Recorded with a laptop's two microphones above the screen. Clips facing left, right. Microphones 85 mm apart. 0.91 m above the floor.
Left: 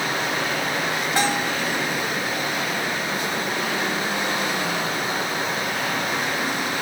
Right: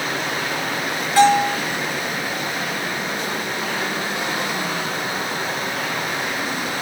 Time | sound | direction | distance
1.2 | a bell | 20° left (ahead or behind) | 1.8 m